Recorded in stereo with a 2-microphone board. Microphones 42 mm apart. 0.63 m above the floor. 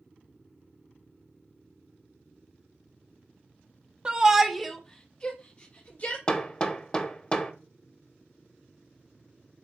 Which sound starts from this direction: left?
Hammering, at 6.3 s.